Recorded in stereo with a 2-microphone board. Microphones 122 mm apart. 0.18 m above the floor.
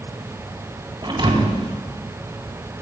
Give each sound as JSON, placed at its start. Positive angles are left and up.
{"t": 1.0, "sound": "a thud", "side_deg": -40, "distance_m": 4.5}